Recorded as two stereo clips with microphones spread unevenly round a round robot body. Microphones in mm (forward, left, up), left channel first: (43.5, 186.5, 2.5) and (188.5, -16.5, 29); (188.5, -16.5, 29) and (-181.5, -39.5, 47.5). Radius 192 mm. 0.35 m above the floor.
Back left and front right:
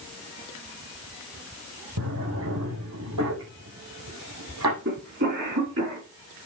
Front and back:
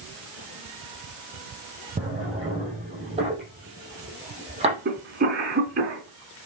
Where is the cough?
110° right, 4 m.